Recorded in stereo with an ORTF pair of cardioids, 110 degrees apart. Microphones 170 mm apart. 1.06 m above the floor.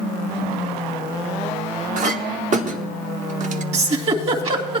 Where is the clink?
45° right, 1.1 m.